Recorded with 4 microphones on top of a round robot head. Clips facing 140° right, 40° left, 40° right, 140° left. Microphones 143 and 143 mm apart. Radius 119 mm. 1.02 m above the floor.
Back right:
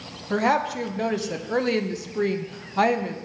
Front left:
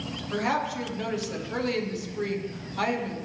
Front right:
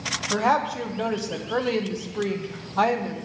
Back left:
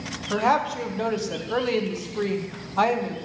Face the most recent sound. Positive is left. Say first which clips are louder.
# back right 6 dB, even
turn(degrees=-125)